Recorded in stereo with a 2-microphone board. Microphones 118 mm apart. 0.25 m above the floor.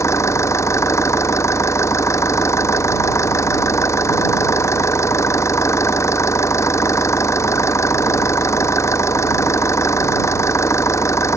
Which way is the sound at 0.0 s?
25° left (ahead or behind).